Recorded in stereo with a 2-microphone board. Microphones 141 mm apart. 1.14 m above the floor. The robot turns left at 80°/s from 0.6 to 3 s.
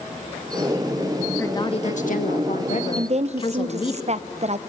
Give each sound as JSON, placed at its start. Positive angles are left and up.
{"t": 1.4, "sound": "a woman speaking", "azimuth_deg": 165, "distance_m": 1.7}
{"t": 3.0, "sound": "a woman speaking", "side_deg": -50, "distance_m": 0.7}